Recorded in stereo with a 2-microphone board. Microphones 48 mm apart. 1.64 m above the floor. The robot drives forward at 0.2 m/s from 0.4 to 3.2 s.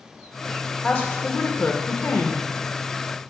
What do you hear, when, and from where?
0.8 s a woman speaking: 35° left (ahead or behind), 1.2 m; by 2.5 s 45° left (ahead or behind), 0.9 m